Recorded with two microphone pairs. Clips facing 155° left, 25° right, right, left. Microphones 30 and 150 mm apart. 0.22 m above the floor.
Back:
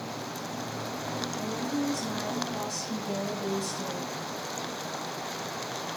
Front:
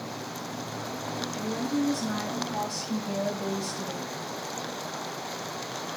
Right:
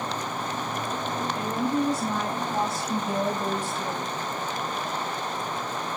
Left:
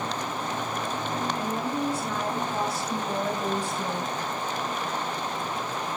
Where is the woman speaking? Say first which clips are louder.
Front 4 dB, right 3 dB; 50° right, 3 m; by 4.1 s 85° left, 1.4 m.